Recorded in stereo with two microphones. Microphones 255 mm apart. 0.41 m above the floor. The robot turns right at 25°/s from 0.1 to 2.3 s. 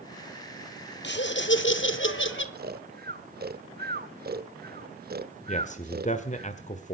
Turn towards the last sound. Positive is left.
turn(degrees=30)  # may be behind; listen again after turning